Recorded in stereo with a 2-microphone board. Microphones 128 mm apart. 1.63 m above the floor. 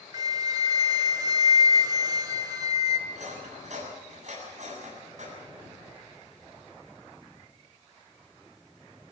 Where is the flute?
30° right (ahead or behind), 1.6 m.